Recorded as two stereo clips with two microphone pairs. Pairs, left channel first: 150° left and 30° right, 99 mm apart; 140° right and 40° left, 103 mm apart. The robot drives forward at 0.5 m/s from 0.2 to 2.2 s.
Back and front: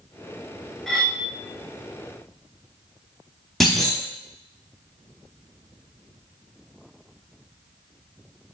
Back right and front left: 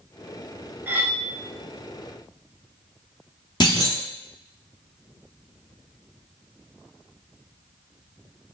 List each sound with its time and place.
0.9 s cutlery clinking: 65° left, 0.6 m; by 1.2 s 120° left, 0.6 m
3.6 s a clunk: 125° right, 0.8 m